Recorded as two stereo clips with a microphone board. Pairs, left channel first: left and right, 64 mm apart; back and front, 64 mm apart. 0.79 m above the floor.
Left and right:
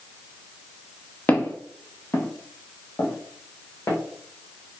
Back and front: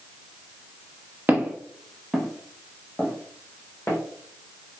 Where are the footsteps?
45° left, 0.9 m; by 4.0 s 130° left, 1.7 m.